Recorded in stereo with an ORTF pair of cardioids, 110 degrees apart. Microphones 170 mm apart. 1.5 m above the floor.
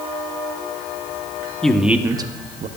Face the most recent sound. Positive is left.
turn(degrees=-50)